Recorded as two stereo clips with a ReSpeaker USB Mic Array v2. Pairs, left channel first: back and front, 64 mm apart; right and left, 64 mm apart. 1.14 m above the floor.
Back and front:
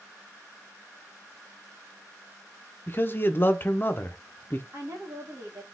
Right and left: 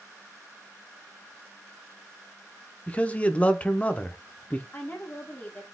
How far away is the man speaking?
About 0.5 m.